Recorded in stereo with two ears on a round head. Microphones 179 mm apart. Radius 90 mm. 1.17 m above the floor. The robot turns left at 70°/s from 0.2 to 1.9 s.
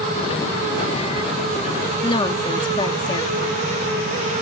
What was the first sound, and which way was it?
A woman speaking, 25° left (ahead or behind).